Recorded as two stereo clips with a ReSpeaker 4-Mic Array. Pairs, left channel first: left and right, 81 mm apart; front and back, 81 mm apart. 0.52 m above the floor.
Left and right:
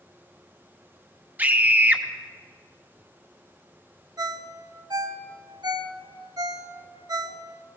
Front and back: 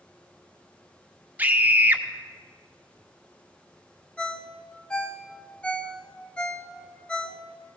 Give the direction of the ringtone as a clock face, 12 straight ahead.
3 o'clock.